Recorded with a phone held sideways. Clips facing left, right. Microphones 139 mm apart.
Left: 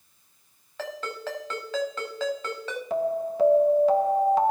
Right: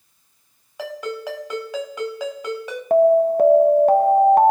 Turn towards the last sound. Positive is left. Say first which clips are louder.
# right 13 dB
turn(degrees=-55)  # may be behind; listen again after turning